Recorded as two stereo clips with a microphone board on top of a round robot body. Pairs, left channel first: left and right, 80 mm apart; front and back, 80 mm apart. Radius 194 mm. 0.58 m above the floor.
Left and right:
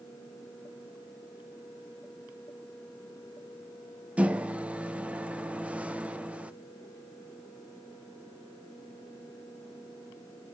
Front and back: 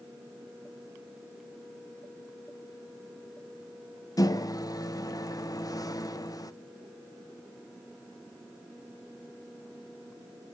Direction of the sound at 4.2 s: 20° right.